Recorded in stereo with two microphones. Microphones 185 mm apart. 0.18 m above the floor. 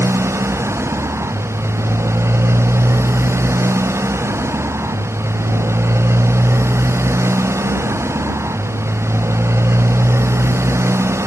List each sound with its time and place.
0.0 s a motorcycle: 15° right (ahead or behind)